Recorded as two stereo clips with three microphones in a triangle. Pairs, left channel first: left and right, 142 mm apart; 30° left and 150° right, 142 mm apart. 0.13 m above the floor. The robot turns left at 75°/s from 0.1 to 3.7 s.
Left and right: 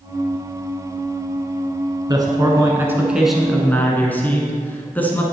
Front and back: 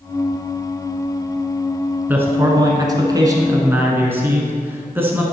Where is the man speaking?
85° right, 1.2 m; by 5.2 s 155° left, 1.2 m.